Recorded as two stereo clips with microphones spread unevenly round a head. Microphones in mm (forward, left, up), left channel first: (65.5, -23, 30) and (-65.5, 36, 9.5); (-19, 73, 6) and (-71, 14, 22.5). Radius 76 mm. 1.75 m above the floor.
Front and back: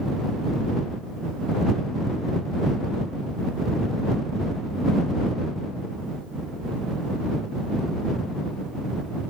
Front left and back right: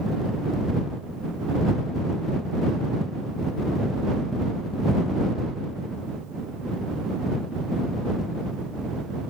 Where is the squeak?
I don't hear a squeak.